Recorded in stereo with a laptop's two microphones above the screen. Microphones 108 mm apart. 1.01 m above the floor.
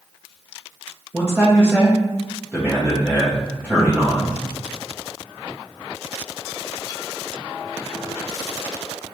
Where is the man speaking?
10° right (ahead or behind), 0.8 m.